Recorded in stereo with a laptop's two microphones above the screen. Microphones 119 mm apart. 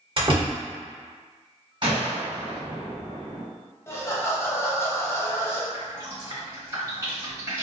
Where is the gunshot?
45° right (ahead or behind), 1.4 m.